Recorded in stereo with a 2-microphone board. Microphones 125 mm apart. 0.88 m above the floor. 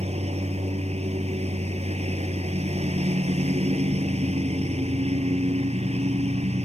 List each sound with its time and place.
0.0 s a lawn mower: 60° right (ahead or behind)